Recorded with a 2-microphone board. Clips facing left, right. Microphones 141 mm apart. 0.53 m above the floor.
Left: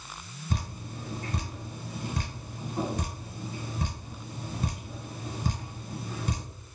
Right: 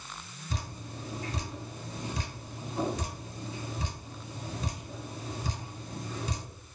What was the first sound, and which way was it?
Dripping, 55° left (ahead or behind).